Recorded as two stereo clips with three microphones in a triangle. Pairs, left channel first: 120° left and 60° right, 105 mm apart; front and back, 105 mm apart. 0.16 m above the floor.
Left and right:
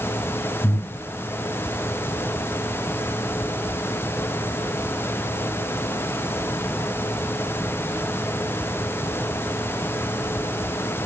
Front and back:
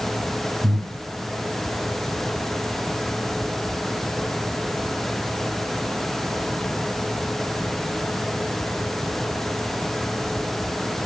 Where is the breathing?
160° right, 1.5 m.